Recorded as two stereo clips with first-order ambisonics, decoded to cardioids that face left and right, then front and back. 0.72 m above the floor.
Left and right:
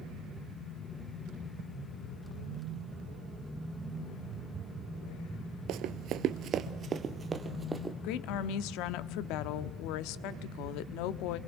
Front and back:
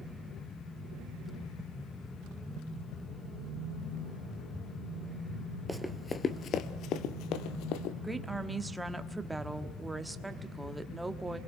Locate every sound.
5.7 s running footsteps: 90° right, 1.0 m; by 7.9 s 5° right, 1.6 m
8.0 s a woman speaking: 95° left, 1.1 m